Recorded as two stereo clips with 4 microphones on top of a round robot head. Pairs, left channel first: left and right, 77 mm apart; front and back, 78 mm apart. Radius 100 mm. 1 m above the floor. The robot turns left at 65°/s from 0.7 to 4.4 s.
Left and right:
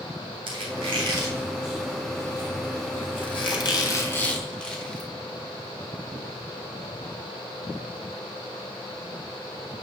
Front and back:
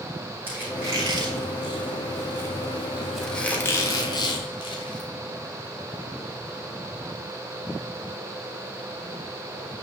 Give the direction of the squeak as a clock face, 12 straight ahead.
4 o'clock.